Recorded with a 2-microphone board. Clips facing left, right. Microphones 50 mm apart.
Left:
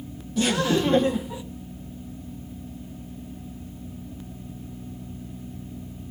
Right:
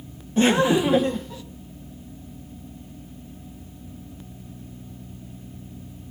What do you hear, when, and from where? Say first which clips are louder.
0.4 s laughter: right 4 dB; 35° right (ahead or behind), 1.2 m; by 1.4 s 20° left (ahead or behind), 1.2 m